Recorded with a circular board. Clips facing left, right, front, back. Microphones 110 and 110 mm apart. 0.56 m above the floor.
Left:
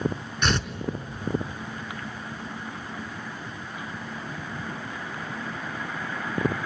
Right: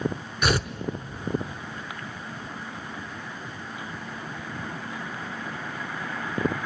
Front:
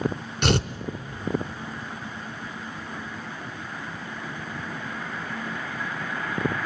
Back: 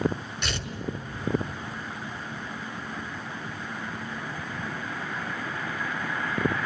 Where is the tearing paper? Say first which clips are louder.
Right 2 dB, front 16 dB; 10° right, 0.9 m.